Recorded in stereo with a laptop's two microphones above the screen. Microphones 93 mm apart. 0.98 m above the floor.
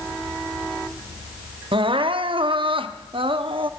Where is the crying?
65° right (ahead or behind), 0.7 m.